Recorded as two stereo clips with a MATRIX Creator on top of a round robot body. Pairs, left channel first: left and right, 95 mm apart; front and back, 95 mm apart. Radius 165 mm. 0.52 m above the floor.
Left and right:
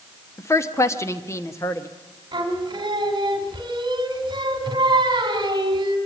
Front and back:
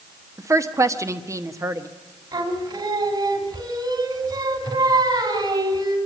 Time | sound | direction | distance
0.4 | a woman speaking | 140° left | 1.4 m
2.3 | singing | 135° right | 3 m